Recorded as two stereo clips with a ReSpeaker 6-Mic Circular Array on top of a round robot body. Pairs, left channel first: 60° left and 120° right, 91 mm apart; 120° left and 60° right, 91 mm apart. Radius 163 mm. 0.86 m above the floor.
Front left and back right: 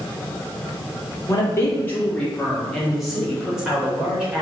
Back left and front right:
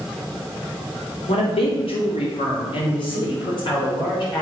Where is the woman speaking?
115° left, 2.5 m; by 4.4 s 160° left, 4.5 m.